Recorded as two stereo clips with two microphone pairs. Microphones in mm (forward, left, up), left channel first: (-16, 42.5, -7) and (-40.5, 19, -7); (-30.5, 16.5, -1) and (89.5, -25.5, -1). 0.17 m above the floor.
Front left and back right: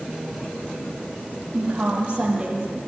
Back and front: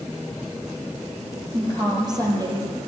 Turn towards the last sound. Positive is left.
turn(degrees=-75)